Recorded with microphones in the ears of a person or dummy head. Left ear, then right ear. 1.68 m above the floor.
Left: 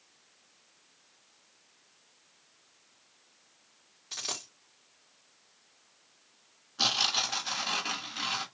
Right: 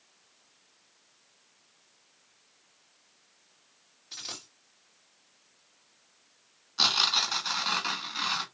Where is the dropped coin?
15° left (ahead or behind), 1.7 m.